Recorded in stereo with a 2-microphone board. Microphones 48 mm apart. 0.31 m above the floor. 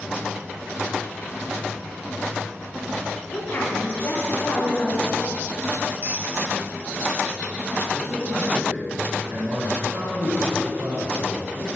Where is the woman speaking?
30° left (ahead or behind), 3 m; by 5.3 s 55° left (ahead or behind), 3 m.